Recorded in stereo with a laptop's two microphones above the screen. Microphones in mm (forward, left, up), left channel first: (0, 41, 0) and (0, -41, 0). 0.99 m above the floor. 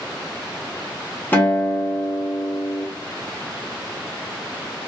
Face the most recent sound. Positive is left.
turn(degrees=20)  # may be behind; listen again after turning